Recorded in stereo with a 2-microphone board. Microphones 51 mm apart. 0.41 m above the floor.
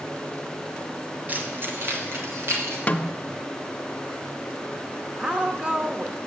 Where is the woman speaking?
20° right (ahead or behind), 0.8 m.